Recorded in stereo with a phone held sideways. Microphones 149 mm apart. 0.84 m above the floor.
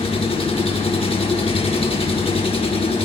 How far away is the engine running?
About 0.8 m.